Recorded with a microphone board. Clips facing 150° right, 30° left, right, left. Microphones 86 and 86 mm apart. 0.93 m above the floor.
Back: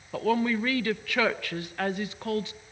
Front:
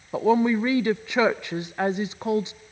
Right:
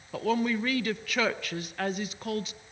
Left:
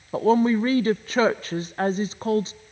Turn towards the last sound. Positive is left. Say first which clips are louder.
# front 5 dB, left 8 dB
turn(degrees=80)